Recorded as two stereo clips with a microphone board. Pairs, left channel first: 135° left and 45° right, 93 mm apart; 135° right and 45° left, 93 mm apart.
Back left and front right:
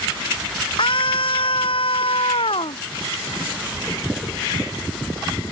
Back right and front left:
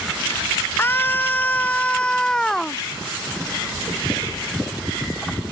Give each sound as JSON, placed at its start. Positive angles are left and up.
{"t": 0.8, "sound": "a scream", "azimuth_deg": 160}